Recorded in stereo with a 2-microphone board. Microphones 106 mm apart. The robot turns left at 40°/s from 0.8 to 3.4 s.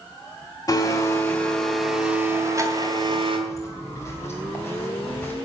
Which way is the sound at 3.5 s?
30° left (ahead or behind).